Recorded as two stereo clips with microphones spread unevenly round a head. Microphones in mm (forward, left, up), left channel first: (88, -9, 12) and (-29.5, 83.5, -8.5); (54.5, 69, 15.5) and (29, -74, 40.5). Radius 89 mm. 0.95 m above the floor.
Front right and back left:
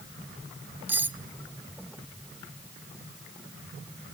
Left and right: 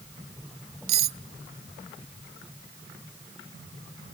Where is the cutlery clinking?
135° right, 0.5 m.